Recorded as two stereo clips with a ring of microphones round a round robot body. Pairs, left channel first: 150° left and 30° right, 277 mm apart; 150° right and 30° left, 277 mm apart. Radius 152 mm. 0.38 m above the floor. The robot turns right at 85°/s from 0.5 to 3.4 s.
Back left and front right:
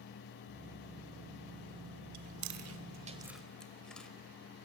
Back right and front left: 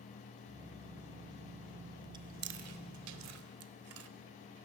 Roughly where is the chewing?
Ahead right.